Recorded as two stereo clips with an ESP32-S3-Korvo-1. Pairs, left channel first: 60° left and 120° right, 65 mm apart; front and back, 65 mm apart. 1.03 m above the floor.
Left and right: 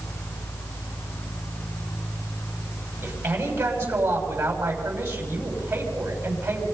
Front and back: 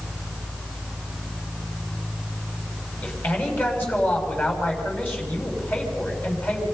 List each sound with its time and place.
3.0 s a man speaking: 60° right, 6.5 m